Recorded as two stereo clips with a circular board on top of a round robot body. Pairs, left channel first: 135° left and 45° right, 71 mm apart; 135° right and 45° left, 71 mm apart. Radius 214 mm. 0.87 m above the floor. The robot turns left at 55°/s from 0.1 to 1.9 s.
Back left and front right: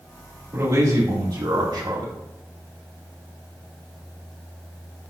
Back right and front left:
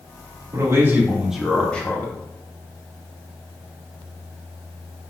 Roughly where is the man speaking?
Ahead.